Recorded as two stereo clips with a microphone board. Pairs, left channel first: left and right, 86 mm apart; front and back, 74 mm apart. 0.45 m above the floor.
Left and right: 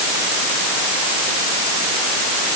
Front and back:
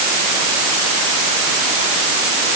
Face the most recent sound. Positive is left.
No sound to turn to.